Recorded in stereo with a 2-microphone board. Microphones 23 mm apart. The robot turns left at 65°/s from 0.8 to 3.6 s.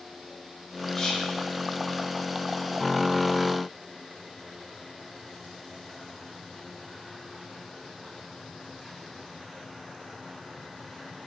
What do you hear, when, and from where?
0.9 s whispering: 20° left (ahead or behind), 0.7 m; by 1.3 s 25° left (ahead or behind), 0.7 m